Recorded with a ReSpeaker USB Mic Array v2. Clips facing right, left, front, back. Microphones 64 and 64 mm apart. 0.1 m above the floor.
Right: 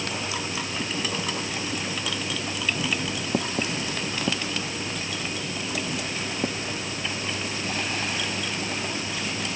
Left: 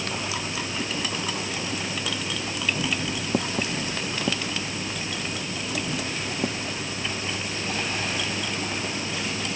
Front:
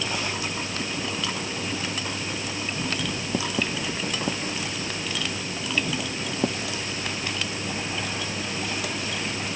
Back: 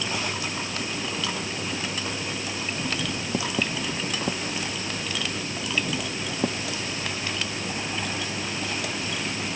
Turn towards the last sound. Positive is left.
No sound to turn to.